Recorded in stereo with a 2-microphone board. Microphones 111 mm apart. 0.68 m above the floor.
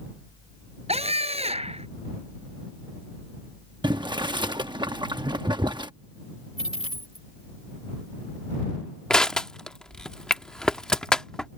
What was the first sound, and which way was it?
A scream, 65° right (ahead or behind).